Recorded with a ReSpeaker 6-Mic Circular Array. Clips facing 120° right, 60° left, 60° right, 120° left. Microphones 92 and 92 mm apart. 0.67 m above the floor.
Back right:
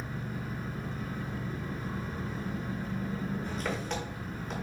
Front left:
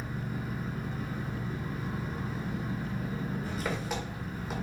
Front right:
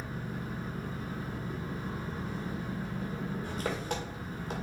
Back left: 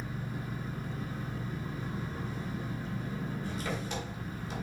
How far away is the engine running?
About 1.8 m.